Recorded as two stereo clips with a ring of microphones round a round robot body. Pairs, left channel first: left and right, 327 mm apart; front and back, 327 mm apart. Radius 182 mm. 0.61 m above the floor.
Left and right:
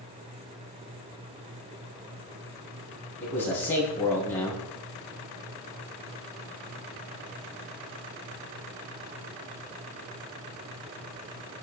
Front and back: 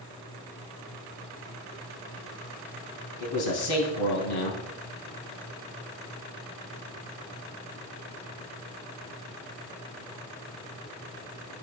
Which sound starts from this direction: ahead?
A man speaking, at 3.2 s.